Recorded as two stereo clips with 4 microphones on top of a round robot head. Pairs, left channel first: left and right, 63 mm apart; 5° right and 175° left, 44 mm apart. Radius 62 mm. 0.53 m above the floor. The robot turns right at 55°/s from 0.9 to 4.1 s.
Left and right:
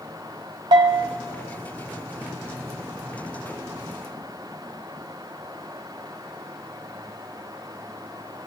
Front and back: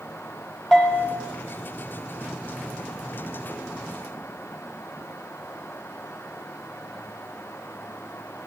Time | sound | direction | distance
0.7 | a bell | 90° right | 1.1 m